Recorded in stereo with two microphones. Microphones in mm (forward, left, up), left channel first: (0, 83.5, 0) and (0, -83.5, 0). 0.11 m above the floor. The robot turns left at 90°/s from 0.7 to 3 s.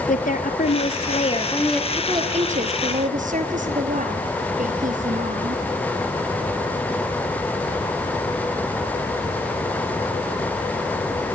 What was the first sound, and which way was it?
A woman speaking, 100° left.